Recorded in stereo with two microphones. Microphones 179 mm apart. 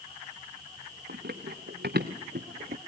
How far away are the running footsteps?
About 3 m.